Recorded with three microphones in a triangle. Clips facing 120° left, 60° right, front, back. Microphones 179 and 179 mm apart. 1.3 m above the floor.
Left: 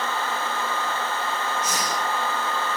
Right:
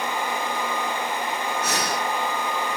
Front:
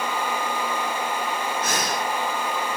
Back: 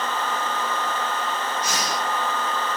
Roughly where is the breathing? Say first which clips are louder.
Right 2 dB, front 1 dB; ahead right.